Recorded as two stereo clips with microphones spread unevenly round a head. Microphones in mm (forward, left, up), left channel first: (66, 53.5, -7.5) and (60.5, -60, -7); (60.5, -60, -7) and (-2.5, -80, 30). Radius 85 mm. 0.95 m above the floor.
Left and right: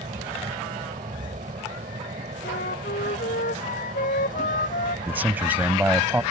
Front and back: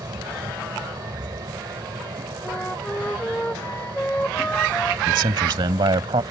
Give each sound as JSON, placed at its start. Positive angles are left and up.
{"t": 0.0, "sound": "a fan", "azimuth_deg": -145}
{"t": 2.4, "sound": "a flute", "azimuth_deg": 100}
{"t": 5.1, "sound": "a man speaking", "azimuth_deg": -175}